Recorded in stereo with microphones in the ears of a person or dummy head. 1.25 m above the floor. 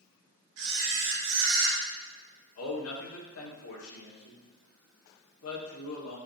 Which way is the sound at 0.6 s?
65° right (ahead or behind).